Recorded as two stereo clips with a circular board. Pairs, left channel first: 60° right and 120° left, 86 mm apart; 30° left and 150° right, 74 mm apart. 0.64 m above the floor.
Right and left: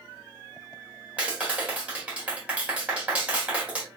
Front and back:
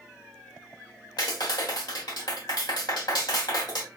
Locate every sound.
1.2 s a clap: 45° left, 1.6 m